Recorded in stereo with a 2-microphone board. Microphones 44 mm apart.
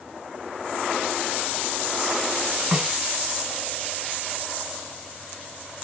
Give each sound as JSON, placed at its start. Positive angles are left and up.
{"t": 2.7, "sound": "a snare drum", "side_deg": -20, "distance_m": 1.7}